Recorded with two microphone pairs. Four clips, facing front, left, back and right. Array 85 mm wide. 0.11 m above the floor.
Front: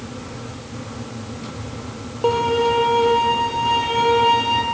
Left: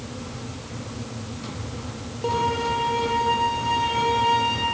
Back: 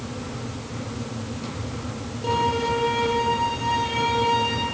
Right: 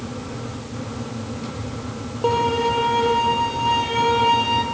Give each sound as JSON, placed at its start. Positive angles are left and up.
{"t": 2.2, "sound": "a violin", "azimuth_deg": -30, "distance_m": 3.5}